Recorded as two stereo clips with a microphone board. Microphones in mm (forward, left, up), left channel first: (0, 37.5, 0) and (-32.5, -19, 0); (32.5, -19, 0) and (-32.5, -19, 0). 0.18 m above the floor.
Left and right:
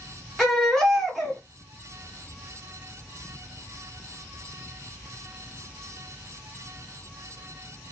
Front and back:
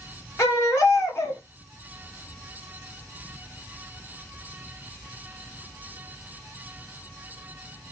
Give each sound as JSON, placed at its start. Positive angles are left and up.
{"t": 0.4, "sound": "a baby crying", "azimuth_deg": -25, "distance_m": 1.6}